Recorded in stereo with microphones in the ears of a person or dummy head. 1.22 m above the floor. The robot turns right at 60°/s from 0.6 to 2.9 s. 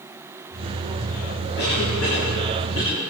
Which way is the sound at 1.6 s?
55° left (ahead or behind).